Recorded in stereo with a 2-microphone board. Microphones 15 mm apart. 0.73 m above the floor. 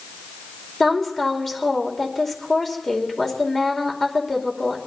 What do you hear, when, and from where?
0.8 s a woman speaking: 20° left (ahead or behind), 2.5 m